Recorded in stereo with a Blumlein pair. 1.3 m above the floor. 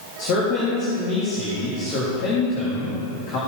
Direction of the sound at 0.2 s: 45° left.